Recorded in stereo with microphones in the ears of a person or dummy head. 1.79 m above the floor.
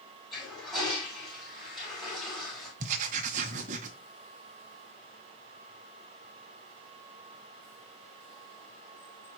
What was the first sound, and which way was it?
A toilet flushing, centre (ahead or behind).